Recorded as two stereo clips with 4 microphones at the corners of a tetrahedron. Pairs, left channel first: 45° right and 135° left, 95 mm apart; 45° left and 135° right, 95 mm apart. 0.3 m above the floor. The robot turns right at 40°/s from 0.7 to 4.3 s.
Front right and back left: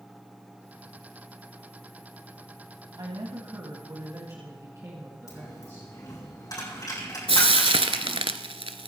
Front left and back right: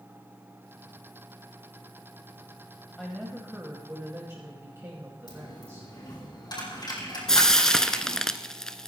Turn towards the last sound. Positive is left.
turn(degrees=130)